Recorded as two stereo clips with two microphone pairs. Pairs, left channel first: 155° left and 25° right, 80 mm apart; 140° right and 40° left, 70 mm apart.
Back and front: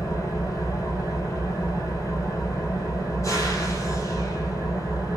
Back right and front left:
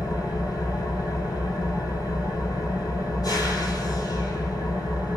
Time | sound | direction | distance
0.0 | an engine running | 155° right | 1.8 m